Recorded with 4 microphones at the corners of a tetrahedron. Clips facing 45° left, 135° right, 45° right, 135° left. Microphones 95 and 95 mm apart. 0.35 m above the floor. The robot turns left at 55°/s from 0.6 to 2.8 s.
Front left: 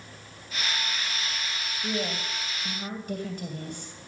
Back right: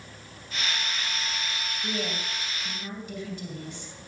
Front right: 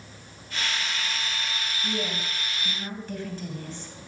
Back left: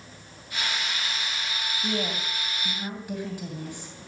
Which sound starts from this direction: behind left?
A woman speaking, at 1.8 s.